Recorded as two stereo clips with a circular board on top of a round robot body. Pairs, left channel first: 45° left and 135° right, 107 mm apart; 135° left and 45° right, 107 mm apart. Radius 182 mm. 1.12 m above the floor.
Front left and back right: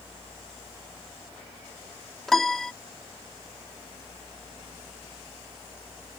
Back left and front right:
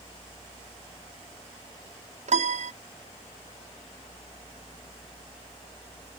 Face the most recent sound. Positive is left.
turn(degrees=-40)